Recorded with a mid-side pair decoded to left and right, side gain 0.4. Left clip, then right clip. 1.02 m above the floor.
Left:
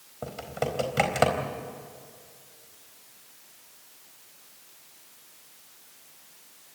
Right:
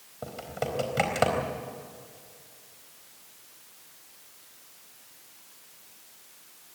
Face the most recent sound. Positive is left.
turn(degrees=20)